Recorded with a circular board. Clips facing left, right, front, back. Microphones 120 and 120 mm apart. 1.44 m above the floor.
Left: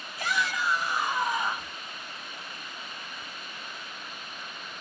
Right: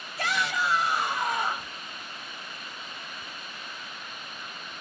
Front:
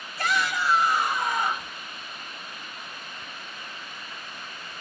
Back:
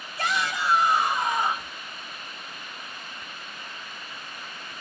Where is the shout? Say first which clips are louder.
Right 1 dB, front 1 dB; 110° right, 2.5 m.